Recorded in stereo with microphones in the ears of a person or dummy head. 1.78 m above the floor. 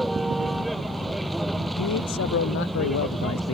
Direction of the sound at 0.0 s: 5° right (ahead or behind).